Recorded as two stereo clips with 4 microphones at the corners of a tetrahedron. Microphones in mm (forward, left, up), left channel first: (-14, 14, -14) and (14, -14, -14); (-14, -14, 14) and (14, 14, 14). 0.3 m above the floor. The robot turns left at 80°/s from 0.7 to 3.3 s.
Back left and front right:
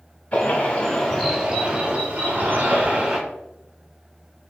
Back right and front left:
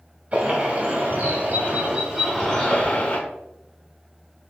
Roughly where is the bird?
Left.